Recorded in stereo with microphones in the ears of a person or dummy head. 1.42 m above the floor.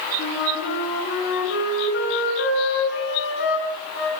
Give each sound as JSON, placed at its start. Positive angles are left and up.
{"t": 0.2, "sound": "a flute", "side_deg": 70, "distance_m": 6.5}